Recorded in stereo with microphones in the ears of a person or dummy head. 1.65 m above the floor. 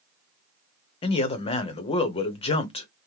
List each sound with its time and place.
1.0 s a man speaking: 35° left (ahead or behind), 0.8 m